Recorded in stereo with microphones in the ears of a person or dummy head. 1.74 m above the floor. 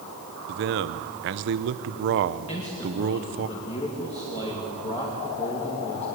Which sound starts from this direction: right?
A man speaking, at 0.5 s.